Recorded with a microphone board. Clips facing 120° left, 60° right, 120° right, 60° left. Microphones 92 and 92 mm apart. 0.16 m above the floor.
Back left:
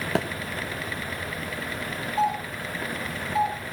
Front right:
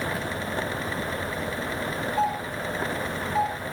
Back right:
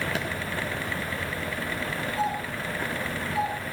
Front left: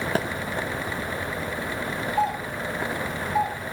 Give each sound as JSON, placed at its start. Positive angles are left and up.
{"t": 0.1, "sound": "a thud", "azimuth_deg": 110, "distance_m": 2.5}
{"t": 2.2, "sound": "a doorbell", "azimuth_deg": 30, "distance_m": 8.0}